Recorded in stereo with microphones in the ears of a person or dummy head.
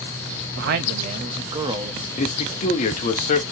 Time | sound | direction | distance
0.6 | a man speaking | 60° right (ahead or behind) | 0.6 m
2.2 | a man speaking | 35° left (ahead or behind) | 0.8 m